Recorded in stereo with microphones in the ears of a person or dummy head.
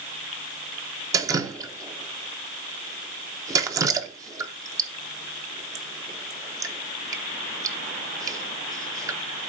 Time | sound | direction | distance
1.1 | dripping | 10° right (ahead or behind) | 0.9 m